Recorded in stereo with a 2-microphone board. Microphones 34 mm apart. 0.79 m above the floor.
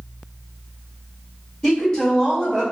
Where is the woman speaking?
15° left (ahead or behind), 1.4 m.